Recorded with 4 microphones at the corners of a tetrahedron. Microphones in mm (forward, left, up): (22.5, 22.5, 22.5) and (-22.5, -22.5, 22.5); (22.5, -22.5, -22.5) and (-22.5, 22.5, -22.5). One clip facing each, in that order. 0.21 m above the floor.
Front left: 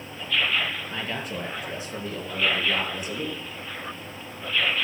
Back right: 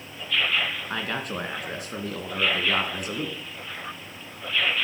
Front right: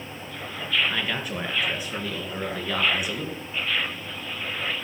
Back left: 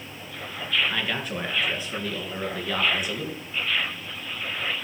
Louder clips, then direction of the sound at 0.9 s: Back right 2 dB, even; 130° right.